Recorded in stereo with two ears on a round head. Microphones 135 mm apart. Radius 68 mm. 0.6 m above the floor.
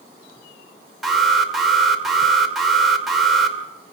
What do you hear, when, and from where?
1.0 s an alarm: centre (ahead or behind), 2.5 m